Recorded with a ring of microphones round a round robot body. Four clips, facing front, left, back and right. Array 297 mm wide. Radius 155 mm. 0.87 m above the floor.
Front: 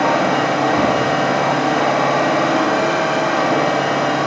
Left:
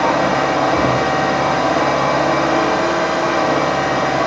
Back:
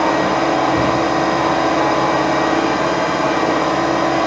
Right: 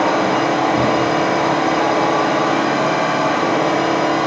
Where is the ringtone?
No ringtone in this recording.